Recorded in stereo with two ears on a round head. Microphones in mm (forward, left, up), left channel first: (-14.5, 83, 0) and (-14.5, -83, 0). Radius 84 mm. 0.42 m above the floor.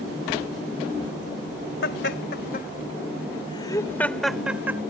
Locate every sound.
1.8 s laughter: 60° left (ahead or behind); by 4.8 s 15° right (ahead or behind)